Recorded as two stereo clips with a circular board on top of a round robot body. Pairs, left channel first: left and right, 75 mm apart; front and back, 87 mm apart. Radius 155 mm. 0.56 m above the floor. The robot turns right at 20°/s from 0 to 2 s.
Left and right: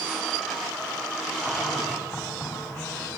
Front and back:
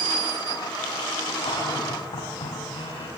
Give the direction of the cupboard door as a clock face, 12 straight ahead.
11 o'clock.